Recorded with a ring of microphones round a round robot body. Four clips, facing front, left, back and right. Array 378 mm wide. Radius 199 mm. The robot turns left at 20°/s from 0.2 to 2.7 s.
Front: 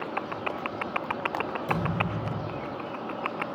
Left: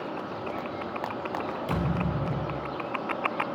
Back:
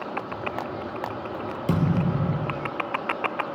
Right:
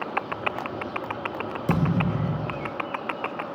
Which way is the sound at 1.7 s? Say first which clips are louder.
Right 7 dB, back 7 dB; 135° right.